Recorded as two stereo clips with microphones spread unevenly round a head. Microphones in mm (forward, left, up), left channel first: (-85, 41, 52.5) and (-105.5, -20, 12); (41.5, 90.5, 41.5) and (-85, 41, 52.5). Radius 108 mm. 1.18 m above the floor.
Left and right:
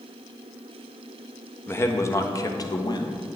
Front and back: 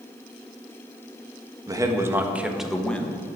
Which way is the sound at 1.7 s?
135° left.